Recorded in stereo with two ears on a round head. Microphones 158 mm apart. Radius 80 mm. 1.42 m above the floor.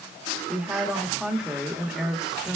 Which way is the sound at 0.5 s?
5° right (ahead or behind).